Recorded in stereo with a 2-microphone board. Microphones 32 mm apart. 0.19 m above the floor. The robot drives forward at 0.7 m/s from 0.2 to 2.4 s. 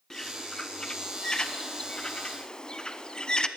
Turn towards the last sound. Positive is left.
turn(degrees=25)  # may be behind; listen again after turning